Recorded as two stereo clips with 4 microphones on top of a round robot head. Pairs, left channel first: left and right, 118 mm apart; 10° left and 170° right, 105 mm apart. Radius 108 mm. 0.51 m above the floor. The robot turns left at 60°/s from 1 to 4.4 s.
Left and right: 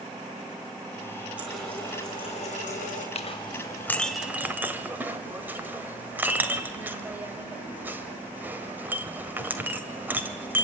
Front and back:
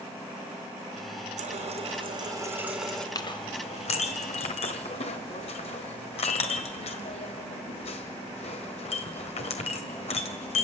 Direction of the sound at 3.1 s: 60° left.